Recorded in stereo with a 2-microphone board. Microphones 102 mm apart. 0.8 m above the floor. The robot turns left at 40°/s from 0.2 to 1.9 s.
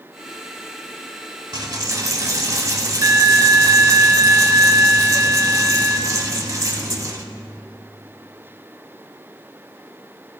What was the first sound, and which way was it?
A dropped coin, 50° right (ahead or behind).